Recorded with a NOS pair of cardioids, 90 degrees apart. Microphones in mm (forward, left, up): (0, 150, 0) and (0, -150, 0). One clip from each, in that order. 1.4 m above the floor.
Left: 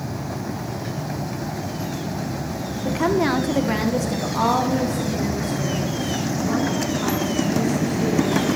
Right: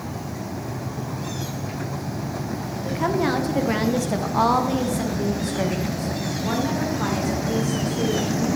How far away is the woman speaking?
About 1.1 m.